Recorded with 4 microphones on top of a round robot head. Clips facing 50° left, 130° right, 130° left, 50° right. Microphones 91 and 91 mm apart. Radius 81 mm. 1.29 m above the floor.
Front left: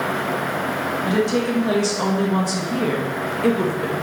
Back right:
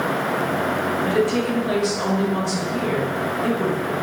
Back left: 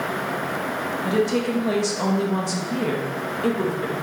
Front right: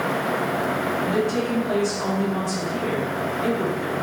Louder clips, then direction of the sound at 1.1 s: Front left 1 dB, back left 4 dB; 125° left.